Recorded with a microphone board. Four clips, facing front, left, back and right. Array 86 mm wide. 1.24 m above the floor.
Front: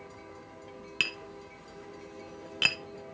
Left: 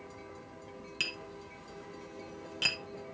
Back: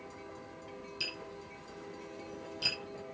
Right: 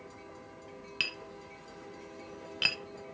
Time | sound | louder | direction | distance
1.0 | tapping | right 1 dB, front 4 dB | 15° right | 0.8 m